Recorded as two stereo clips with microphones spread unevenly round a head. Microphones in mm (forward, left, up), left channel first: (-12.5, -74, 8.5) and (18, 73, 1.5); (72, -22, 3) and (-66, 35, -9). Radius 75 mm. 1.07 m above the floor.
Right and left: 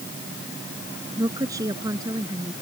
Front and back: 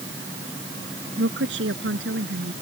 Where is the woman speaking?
150° left.